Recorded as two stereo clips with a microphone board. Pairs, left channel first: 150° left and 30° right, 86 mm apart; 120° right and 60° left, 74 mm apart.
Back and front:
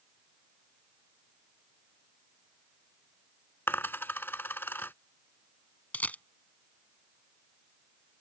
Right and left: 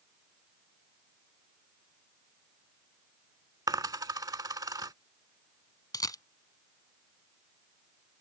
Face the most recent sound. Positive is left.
turn(degrees=-140)